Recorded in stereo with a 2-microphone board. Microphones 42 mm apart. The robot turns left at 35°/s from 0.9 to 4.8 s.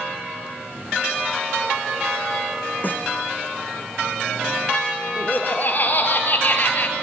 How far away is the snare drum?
About 1.0 m.